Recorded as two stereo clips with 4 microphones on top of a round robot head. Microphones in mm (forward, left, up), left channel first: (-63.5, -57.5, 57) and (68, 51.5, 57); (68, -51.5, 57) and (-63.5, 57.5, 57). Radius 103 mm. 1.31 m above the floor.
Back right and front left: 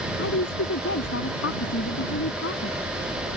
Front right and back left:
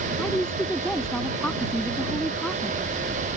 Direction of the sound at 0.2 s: 125° right.